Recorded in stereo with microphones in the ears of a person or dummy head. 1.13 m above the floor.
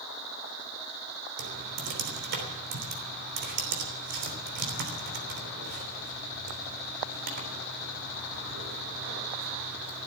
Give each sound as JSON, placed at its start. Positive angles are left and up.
{"t": 1.4, "sound": "typing on a keyboard", "side_deg": -55, "distance_m": 3.0}